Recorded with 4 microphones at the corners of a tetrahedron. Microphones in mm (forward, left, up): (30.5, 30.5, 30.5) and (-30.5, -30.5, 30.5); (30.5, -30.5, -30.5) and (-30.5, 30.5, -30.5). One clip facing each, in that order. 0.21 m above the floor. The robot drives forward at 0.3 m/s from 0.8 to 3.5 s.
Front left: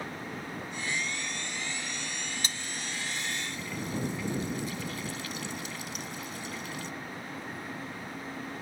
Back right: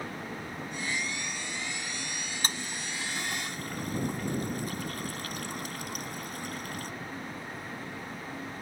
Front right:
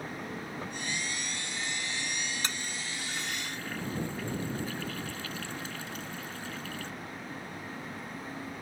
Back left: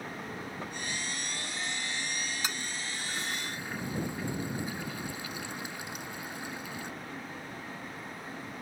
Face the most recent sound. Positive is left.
turn(degrees=-155)